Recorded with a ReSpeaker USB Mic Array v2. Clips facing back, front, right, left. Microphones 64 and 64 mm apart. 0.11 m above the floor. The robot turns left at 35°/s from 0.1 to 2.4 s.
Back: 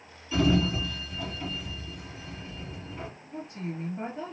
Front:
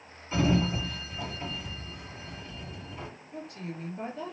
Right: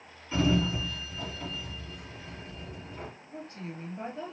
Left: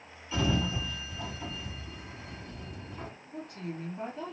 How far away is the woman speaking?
About 2.5 m.